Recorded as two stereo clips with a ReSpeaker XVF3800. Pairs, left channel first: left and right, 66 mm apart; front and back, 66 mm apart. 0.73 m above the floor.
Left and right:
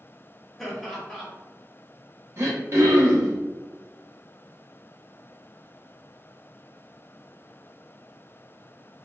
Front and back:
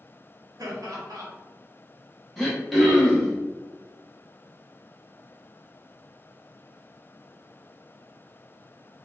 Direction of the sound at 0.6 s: Straight behind.